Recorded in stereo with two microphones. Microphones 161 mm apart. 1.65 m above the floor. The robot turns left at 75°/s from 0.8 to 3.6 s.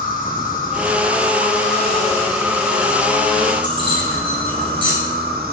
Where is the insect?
115° left, 1.6 m; by 5.5 s 95° right, 1.6 m.